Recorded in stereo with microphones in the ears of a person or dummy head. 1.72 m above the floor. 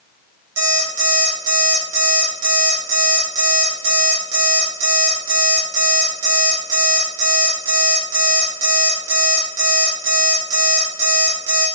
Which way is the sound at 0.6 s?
65° right (ahead or behind).